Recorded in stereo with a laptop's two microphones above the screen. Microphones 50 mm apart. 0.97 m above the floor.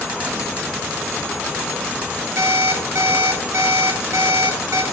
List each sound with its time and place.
2.4 s an alarm clock: 75° right (ahead or behind), 2.0 m